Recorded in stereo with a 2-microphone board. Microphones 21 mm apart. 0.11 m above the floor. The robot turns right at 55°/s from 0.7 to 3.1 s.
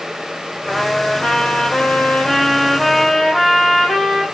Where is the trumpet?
55° left, 1.7 m; by 4.2 s 175° right, 1.7 m.